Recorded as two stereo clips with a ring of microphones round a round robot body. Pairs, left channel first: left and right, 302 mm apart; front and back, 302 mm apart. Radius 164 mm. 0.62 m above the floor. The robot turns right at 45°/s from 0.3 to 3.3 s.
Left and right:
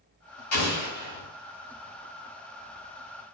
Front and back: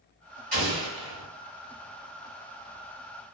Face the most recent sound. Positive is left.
turn(degrees=-120)